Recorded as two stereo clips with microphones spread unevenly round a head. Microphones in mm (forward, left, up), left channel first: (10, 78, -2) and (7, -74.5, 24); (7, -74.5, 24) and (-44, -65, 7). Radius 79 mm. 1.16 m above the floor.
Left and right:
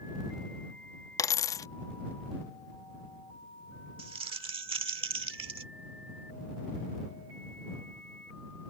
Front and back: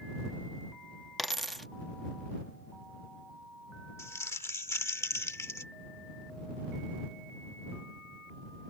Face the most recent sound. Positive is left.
turn(degrees=-35)